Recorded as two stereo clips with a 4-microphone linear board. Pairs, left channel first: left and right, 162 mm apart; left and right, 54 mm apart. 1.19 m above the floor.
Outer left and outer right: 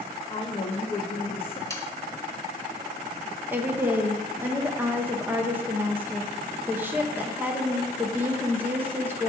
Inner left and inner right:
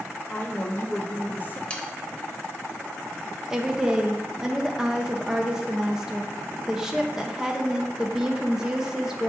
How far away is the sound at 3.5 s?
About 0.7 m.